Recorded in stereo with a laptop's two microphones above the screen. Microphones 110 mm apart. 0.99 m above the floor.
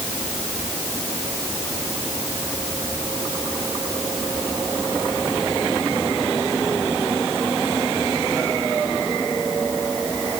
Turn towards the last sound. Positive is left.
No sound to turn to.